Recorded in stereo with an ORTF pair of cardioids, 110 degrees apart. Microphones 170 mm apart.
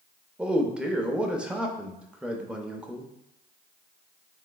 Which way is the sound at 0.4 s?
5° right.